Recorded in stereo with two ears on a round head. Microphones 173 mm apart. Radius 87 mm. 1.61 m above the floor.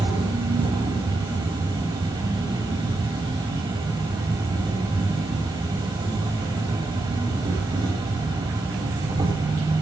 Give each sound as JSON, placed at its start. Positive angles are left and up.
{"t": 0.0, "sound": "an insect", "side_deg": -20, "distance_m": 6.5}